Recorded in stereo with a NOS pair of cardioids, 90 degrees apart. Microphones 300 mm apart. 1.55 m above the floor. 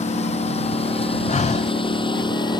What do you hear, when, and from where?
0.0 s a lawn mower: 20° left; by 2.6 s 15° left
1.3 s breathing: 25° left